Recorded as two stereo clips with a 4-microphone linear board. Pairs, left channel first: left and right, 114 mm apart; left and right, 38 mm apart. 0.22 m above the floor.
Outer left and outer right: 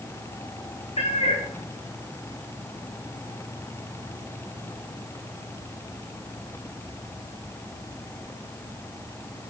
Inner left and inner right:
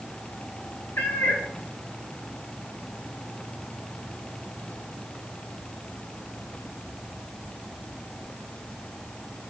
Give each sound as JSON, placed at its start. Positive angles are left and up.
{"t": 1.0, "sound": "a cat meowing", "side_deg": 60, "distance_m": 4.0}